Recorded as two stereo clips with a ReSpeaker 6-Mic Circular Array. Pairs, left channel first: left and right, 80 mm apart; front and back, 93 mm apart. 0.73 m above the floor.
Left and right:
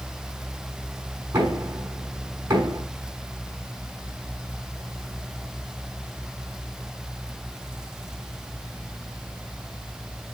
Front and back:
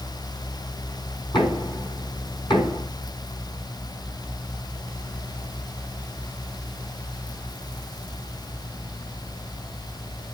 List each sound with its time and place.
1.3 s knocking: 30° right, 5 m